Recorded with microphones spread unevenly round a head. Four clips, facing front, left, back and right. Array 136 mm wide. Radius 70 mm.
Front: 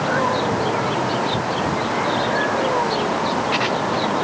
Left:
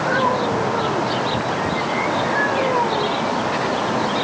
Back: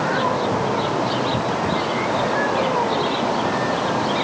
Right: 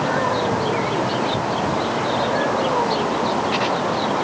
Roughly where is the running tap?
I don't hear a running tap.